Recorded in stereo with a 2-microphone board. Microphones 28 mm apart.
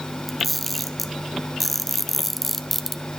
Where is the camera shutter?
5° left (ahead or behind), 0.9 m.